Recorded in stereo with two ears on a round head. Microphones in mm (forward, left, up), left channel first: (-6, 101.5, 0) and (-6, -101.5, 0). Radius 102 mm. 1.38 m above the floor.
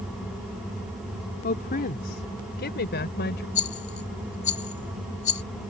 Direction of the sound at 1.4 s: 40° left (ahead or behind).